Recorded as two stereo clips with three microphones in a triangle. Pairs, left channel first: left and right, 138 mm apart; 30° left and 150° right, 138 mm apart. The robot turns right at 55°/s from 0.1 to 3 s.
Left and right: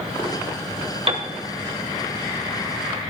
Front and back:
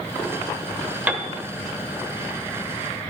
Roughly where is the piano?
Right.